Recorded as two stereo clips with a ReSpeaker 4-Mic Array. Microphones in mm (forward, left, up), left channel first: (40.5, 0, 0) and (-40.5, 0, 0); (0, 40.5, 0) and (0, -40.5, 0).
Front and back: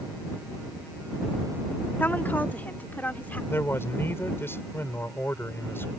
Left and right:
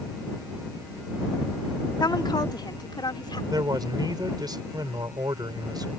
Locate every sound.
2.0 s a woman speaking: 65° left; by 3.4 s 70° left
3.5 s a man speaking: 60° right